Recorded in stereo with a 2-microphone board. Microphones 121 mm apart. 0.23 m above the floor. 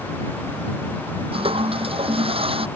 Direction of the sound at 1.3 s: 50° right (ahead or behind).